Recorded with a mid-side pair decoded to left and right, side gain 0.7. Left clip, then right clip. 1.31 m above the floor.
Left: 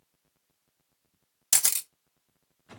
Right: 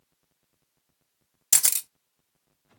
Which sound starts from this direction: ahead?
A camera shutter, at 1.5 s.